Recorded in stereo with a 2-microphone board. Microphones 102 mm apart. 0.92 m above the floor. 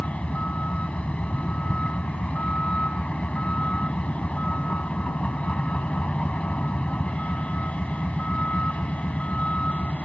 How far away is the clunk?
I don't hear a clunk.